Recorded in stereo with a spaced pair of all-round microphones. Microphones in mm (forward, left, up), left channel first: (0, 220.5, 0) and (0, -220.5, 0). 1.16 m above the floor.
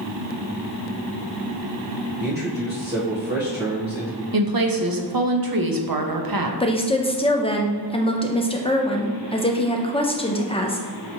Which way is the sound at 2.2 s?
25° right (ahead or behind).